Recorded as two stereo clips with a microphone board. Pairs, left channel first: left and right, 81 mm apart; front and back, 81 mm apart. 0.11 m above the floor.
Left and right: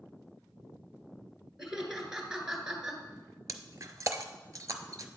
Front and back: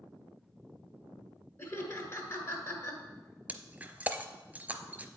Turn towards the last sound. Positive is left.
turn(degrees=-115)